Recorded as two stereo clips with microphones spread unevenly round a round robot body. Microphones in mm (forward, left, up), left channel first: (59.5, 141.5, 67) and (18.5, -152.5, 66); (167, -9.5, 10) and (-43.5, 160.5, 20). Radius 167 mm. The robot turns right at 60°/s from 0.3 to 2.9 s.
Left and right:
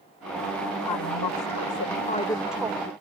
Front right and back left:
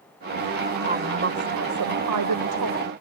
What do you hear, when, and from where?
0.9 s a woman speaking: 75° left; by 2.9 s 165° right